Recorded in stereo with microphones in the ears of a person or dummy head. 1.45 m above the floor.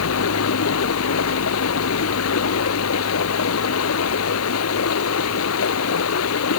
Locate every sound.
0.0 s running water: 80° left